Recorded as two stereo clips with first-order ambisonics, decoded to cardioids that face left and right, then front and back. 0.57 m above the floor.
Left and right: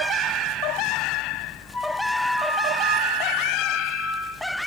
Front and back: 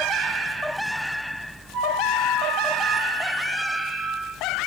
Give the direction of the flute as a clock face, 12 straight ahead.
6 o'clock.